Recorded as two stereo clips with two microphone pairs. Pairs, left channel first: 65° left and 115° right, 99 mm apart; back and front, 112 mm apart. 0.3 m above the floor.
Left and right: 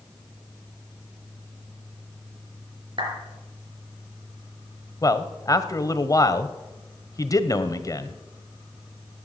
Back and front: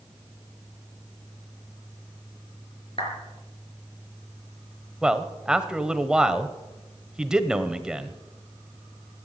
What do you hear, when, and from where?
3.0 s a clap: 150° right, 5 m
5.0 s a man speaking: 75° left, 1.1 m